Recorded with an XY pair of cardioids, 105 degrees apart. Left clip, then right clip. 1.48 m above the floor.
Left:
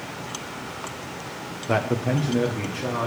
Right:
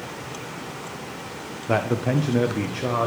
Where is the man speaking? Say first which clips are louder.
Right 1 dB; straight ahead, 0.6 m; by 3.1 s 35° right, 1.1 m.